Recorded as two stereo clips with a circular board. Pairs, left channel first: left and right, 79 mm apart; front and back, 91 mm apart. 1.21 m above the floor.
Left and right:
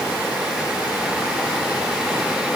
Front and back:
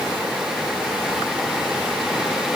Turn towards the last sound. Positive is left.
No sound to turn to.